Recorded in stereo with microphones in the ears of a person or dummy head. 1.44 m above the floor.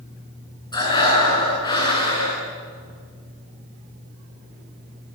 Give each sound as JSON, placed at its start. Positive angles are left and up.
{"t": 0.7, "sound": "breathing", "side_deg": 20, "distance_m": 10.0}